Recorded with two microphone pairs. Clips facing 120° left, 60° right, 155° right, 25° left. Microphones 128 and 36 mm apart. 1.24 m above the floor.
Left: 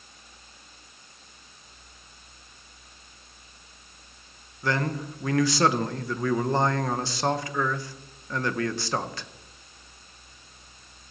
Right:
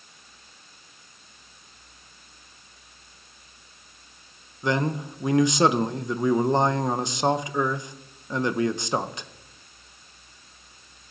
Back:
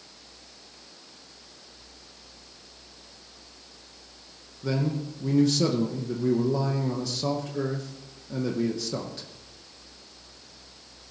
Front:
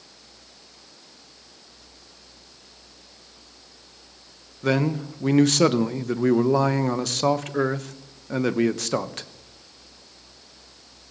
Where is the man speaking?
10° left, 0.8 m.